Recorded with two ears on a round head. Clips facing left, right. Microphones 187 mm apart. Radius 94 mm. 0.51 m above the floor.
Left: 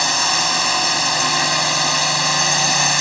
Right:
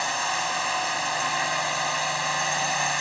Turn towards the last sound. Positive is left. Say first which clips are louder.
# left 6 dB
turn(degrees=60)  # may be behind; listen again after turning